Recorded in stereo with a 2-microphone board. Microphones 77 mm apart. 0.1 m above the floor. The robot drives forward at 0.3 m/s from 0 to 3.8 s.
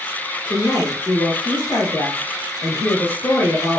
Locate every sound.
0.5 s a woman speaking: 20° left (ahead or behind), 1.6 m; by 3.8 s 25° left (ahead or behind), 1.3 m